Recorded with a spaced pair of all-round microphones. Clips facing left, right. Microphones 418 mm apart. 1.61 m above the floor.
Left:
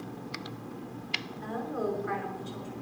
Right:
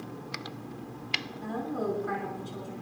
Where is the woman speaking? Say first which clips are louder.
Right 1 dB; 55° right (ahead or behind), 6.5 m.